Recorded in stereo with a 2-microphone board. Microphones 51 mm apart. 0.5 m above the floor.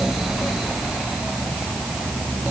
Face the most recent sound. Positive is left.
No sound to turn to.